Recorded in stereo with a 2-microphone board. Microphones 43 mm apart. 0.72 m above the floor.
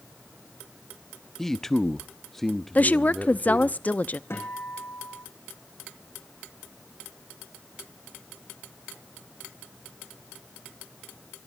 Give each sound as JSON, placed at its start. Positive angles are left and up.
{"t": 1.4, "sound": "a man speaking", "side_deg": 10, "distance_m": 0.9}
{"t": 2.8, "sound": "a woman speaking", "side_deg": 40, "distance_m": 0.6}
{"t": 4.3, "sound": "a guitar", "side_deg": 70, "distance_m": 8.5}